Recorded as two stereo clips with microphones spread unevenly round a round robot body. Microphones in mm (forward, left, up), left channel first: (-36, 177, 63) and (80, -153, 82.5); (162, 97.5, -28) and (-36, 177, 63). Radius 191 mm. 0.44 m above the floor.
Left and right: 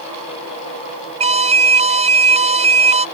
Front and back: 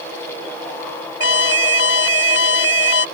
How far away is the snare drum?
I don't hear a snare drum.